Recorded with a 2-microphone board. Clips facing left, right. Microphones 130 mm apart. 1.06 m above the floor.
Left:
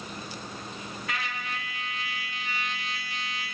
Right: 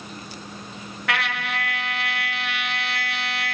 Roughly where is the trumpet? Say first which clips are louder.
Right 9 dB; right.